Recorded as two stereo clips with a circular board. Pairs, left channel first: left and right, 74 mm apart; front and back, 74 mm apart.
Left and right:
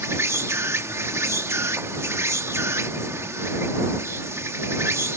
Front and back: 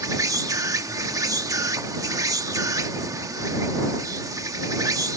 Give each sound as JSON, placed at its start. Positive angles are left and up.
{"t": 0.0, "sound": "an insect", "azimuth_deg": -140}